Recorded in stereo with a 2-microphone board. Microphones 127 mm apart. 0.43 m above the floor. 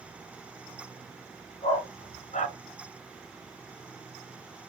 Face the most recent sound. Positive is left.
turn(degrees=70)  # may be behind; listen again after turning